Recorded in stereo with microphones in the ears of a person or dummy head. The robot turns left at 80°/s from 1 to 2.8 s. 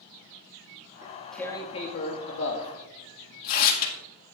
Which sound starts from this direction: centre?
Tearing paper, at 1.0 s.